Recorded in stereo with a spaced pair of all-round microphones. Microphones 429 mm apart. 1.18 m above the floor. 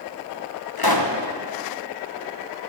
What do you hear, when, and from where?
0.8 s a pop: 55° left (ahead or behind), 1.1 m